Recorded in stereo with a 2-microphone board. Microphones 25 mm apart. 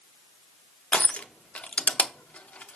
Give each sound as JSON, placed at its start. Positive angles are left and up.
{"t": 0.9, "sound": "crushing", "side_deg": 60, "distance_m": 0.7}